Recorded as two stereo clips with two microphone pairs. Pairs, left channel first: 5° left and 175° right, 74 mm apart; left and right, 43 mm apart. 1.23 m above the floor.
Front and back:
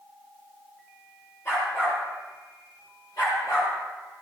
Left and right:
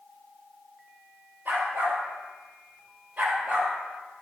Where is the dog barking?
45° right, 6.5 m; by 3.7 s 30° right, 6 m.